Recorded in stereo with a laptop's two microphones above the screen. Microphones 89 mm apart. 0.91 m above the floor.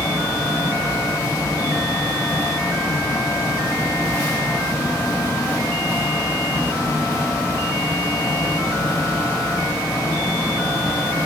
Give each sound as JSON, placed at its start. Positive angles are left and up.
{"t": 0.0, "sound": "a fan", "side_deg": 35, "distance_m": 0.8}